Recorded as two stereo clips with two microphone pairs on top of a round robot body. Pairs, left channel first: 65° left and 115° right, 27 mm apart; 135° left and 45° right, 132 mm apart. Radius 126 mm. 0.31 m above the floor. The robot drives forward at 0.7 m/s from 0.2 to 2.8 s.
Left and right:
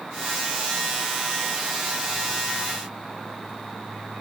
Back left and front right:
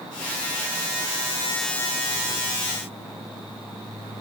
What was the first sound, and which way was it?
Only background noise.